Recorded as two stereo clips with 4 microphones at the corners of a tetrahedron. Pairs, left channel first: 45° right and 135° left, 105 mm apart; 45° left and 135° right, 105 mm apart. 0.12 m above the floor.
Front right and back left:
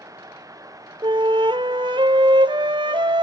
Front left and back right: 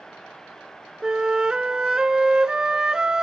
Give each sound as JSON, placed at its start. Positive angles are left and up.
{"t": 1.0, "sound": "a flute", "azimuth_deg": 145, "distance_m": 0.5}